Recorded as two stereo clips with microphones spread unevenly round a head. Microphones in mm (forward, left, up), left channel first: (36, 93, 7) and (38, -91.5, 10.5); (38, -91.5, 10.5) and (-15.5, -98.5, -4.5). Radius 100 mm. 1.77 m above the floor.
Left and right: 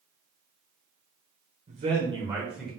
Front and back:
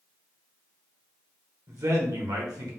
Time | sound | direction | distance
1.7 | a man speaking | 140° right | 1.7 m